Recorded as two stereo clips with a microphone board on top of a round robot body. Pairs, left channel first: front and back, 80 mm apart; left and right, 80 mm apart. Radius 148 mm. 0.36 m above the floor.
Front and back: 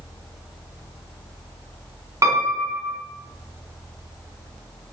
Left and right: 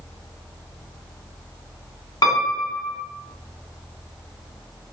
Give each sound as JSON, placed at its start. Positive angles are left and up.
{"t": 2.2, "sound": "a piano", "azimuth_deg": 130, "distance_m": 2.5}